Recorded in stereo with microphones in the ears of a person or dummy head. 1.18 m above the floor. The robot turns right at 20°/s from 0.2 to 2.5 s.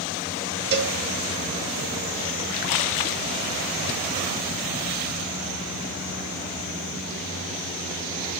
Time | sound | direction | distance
0.7 | a cowbell | 50° right (ahead or behind) | 0.8 m